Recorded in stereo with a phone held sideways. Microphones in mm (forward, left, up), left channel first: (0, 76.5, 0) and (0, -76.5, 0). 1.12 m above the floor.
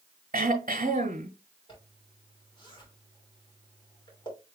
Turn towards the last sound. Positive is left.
turn(degrees=35)  # may be behind; listen again after turning